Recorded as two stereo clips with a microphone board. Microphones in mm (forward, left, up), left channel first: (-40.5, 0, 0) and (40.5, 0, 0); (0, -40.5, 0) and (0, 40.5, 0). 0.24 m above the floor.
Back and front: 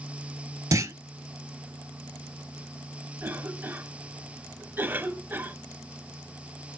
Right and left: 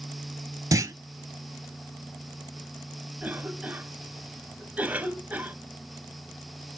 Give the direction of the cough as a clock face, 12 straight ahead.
11 o'clock.